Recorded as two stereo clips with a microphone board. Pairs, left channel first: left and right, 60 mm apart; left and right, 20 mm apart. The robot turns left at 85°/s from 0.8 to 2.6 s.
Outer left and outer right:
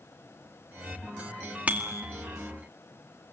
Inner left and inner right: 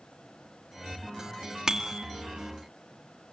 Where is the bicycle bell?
25° right, 2 m; by 2.0 s 55° right, 2 m.